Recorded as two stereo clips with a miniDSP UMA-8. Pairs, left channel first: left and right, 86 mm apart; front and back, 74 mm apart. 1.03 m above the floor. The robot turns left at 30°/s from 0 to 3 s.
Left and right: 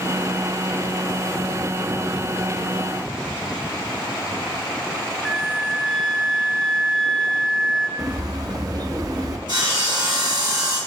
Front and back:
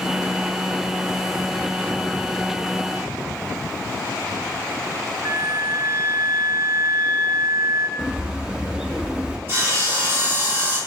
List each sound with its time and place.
5.2 s a flute: straight behind, 0.7 m
8.0 s a bird: 105° right, 0.6 m
9.5 s sawing: 120° right, 3.5 m